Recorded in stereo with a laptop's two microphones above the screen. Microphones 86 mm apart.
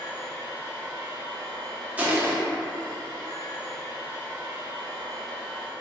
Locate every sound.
0.0 s a machine running: 5° left (ahead or behind), 1.6 m
2.0 s crushing: 20° right (ahead or behind), 0.6 m